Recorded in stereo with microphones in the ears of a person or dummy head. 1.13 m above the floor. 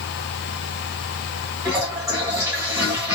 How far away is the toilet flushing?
About 1.9 m.